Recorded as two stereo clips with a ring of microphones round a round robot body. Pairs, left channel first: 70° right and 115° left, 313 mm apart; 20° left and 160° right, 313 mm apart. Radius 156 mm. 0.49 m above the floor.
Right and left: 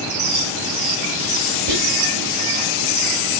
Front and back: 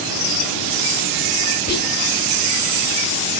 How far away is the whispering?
About 1.2 m.